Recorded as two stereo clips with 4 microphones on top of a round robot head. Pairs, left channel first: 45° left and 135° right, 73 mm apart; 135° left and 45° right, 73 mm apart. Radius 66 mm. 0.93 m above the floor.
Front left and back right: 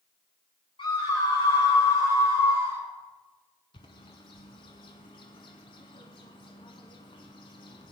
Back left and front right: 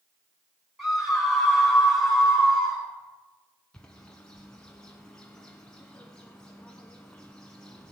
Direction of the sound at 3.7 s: 55° left.